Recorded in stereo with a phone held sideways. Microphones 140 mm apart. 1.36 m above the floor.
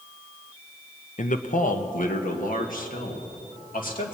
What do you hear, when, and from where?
1.2 s a man speaking: 60° left (ahead or behind), 0.7 m; by 4.2 s 75° left (ahead or behind), 2 m